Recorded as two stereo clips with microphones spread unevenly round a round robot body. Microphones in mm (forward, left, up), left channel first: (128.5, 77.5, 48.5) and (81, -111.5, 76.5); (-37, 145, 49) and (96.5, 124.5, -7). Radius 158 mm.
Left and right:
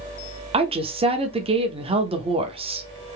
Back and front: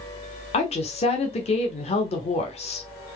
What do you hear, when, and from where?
0.5 s a woman speaking: 145° right, 0.8 m